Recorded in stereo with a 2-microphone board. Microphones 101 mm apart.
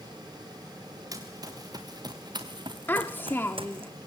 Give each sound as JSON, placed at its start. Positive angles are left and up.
{"t": 1.1, "sound": "running footsteps", "side_deg": -35, "distance_m": 3.0}
{"t": 2.9, "sound": "a child speaking", "side_deg": 20, "distance_m": 0.8}